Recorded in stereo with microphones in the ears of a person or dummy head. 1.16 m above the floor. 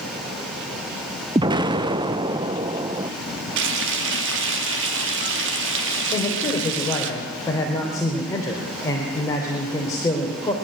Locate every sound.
1.4 s an explosion: 25° right (ahead or behind), 0.6 m
3.6 s frying: 70° right (ahead or behind), 1.6 m
6.1 s a man speaking: 20° left (ahead or behind), 3 m